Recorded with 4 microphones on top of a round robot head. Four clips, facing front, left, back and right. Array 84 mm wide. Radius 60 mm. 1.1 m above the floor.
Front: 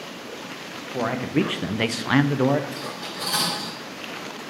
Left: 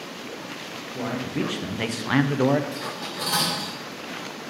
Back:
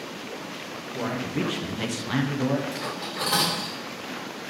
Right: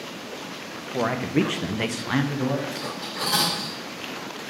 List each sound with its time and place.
0.9 s a man speaking: 50° right, 0.7 m; by 2.6 s 55° left, 0.5 m
2.7 s cutlery clinking: 160° left, 3 m